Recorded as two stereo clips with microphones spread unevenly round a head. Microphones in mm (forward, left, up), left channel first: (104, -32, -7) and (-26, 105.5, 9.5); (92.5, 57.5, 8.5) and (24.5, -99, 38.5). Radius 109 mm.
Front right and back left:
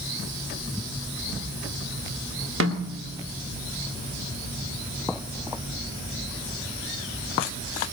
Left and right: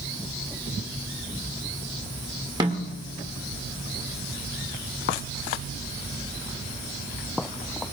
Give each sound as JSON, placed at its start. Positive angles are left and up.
{"t": 2.6, "sound": "a snare drum", "azimuth_deg": 175, "distance_m": 2.0}